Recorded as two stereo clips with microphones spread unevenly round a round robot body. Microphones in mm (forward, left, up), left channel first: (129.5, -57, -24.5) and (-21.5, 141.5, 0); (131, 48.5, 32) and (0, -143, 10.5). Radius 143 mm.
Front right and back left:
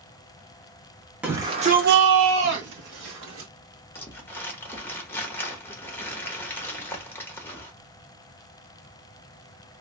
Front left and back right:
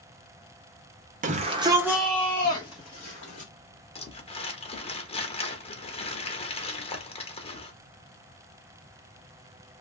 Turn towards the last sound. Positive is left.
turn(degrees=10)